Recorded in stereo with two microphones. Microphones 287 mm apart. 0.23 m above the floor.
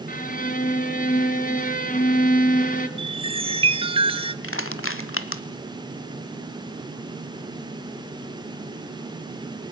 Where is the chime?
20° right (ahead or behind), 1.1 m.